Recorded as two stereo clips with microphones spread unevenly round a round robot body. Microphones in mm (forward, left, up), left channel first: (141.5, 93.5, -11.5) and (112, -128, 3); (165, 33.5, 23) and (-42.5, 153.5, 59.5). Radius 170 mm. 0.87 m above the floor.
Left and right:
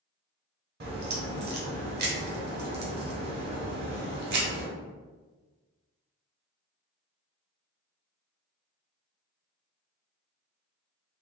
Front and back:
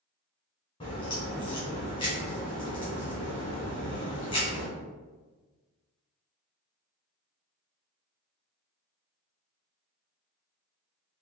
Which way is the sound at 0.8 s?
105° right.